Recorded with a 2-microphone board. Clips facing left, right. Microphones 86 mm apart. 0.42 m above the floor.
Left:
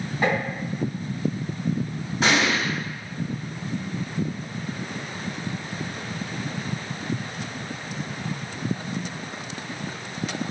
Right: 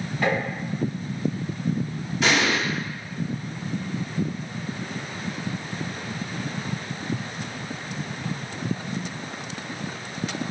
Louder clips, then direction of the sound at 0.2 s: Left 1 dB; 15° left (ahead or behind).